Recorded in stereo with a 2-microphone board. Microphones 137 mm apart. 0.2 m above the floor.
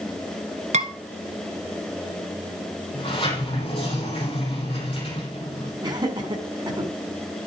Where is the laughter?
35° right (ahead or behind), 1.6 m.